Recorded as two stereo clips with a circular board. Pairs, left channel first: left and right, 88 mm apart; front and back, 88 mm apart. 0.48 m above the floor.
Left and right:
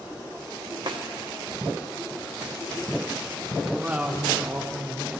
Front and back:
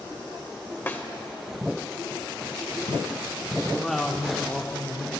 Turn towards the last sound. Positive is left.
turn(degrees=-80)